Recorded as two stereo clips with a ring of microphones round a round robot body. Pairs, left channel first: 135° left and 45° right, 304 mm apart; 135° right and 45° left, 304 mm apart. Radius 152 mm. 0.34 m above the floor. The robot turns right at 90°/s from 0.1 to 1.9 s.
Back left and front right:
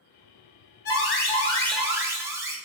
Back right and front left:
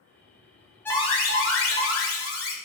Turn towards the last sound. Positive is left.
turn(degrees=-120)